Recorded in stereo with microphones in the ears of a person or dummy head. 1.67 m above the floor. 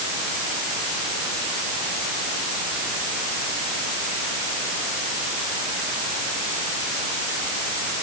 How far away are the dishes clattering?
I don't hear dishes clattering.